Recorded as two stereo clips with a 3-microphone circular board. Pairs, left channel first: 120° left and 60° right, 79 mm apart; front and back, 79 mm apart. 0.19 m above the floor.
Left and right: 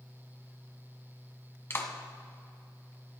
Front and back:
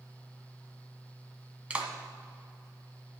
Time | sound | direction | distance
1.7 | a clap | 120° left | 1.5 m